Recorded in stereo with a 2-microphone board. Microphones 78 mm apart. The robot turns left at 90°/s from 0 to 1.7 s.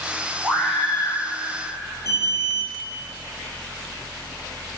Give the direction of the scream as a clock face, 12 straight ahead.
5 o'clock.